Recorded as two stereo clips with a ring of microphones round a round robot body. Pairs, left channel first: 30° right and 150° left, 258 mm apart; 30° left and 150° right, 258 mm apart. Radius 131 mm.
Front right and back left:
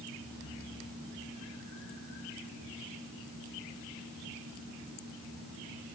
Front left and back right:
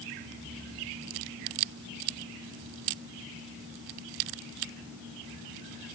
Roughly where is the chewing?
I don't hear chewing.